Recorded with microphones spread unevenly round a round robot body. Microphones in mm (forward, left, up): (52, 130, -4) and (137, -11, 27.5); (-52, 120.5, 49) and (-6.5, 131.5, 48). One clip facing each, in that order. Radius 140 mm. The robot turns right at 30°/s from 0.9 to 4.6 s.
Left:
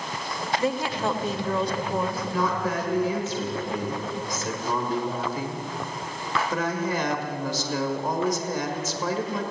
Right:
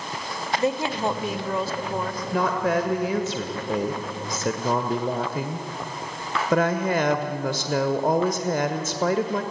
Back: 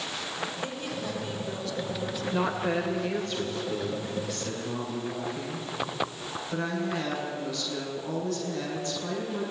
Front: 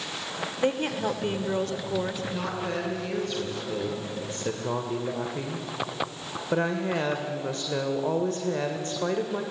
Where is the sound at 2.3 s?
105° right, 1.5 m; by 9.4 s 35° right, 1.5 m.